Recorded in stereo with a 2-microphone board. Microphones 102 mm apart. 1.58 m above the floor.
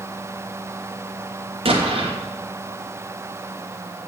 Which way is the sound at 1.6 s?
60° right (ahead or behind).